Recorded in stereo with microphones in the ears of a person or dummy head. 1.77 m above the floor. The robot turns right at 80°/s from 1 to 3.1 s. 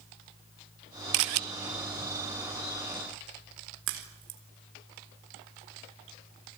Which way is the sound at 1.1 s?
55° right (ahead or behind).